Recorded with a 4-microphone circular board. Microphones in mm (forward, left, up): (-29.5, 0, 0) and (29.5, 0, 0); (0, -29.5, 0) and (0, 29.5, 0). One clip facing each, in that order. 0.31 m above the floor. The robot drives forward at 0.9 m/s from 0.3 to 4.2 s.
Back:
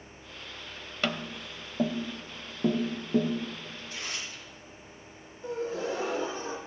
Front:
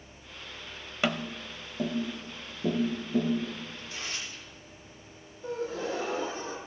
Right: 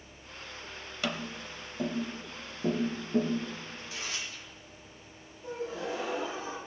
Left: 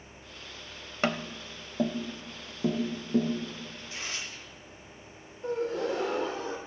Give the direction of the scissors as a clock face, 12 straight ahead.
I don't hear scissors.